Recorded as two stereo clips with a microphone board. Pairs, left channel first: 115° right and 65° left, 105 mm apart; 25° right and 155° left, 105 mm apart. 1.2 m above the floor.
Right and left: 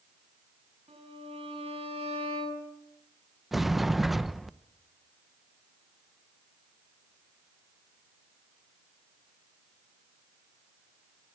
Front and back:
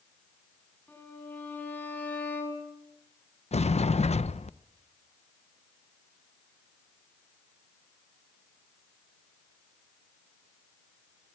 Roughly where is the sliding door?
Ahead.